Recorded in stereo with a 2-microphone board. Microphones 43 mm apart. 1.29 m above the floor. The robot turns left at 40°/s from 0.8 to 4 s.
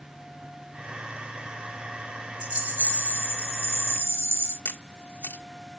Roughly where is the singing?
I don't hear singing.